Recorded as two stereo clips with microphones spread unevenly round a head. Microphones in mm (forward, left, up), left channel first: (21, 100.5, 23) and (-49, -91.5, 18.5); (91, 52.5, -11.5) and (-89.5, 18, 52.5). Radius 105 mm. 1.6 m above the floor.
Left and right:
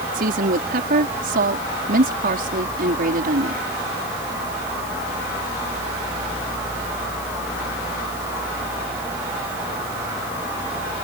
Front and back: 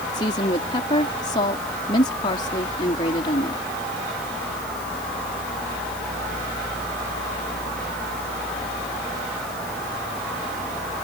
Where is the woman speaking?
60° right.